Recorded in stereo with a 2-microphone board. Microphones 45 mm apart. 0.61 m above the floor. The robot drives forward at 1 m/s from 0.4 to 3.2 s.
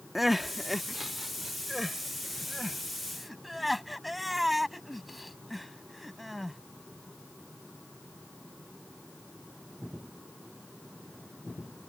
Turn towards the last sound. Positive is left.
turn(degrees=0)  # may be behind; listen again after turning